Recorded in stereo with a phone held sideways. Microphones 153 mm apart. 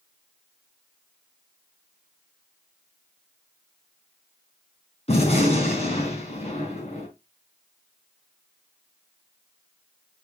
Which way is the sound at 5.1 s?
45° left (ahead or behind).